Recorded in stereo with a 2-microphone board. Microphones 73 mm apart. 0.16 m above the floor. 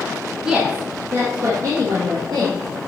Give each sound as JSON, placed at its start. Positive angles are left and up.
{"t": 0.5, "sound": "a woman speaking", "side_deg": -10, "distance_m": 1.5}